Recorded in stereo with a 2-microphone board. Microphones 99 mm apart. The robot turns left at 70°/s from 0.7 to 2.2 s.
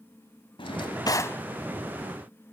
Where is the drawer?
70° left, 0.8 m; by 1.4 s 20° left, 0.8 m.